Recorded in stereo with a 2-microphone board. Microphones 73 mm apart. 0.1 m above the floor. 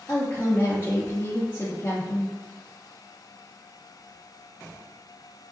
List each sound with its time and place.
0.1 s a woman speaking: 25° left (ahead or behind), 1.8 m